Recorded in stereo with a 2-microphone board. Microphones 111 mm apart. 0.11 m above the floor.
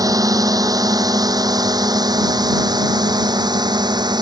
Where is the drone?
35° right (ahead or behind); by 4.2 s 40° right (ahead or behind).